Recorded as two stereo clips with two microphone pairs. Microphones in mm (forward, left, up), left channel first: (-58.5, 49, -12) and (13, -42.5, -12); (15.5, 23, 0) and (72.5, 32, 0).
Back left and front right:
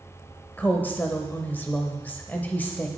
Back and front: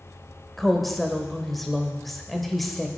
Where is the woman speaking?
95° left, 0.9 m.